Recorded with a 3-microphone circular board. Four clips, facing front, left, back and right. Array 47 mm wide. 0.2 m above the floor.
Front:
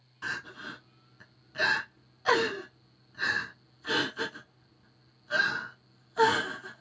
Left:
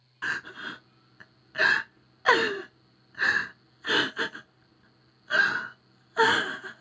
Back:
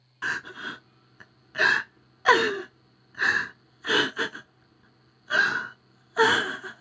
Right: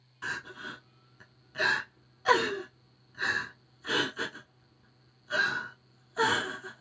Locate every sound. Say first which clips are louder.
0.2 s crying: left 5 dB, back 6 dB; 140° left, 0.5 m